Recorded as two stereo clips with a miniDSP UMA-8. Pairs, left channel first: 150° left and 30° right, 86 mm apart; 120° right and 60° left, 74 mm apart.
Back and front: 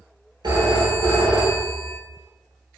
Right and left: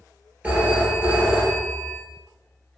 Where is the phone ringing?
10° right, 1.6 m.